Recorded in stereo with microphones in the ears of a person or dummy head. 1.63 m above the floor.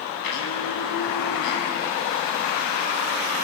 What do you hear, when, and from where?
0.2 s a blender: 65° left (ahead or behind), 8 m